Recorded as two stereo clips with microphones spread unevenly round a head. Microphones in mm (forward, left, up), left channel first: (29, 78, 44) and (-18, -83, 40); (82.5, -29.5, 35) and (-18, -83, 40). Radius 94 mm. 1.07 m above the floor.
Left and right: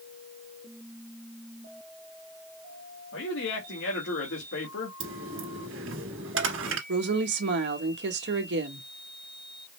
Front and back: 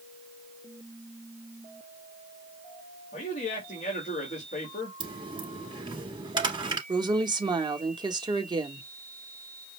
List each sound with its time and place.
3.1 s a man speaking: 65° left, 1.7 m
5.0 s a dropped coin: 110° right, 1.7 m
6.9 s a woman speaking: 100° right, 1.4 m